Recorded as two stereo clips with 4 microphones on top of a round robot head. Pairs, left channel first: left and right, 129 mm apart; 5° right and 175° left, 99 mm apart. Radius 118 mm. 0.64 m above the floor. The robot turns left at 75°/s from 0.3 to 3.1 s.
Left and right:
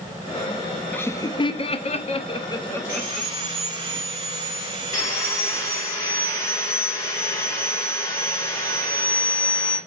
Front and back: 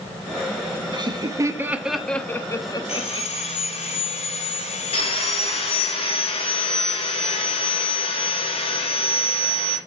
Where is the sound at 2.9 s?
10° right, 3 m; by 5.9 s 25° right, 3 m.